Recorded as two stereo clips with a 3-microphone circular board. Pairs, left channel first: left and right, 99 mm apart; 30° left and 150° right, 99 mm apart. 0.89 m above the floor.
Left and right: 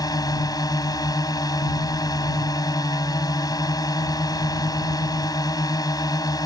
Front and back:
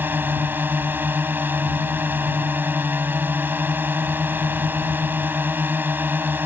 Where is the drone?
140° left.